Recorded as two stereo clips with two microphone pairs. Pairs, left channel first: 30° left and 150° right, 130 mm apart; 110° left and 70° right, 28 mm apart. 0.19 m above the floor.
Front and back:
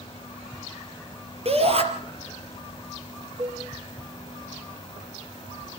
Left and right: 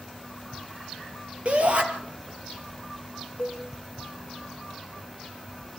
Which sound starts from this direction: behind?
A cowbell, at 3.4 s.